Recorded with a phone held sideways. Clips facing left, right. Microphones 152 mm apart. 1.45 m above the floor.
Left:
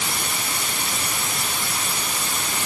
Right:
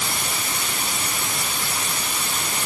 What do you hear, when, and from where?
Only background noise.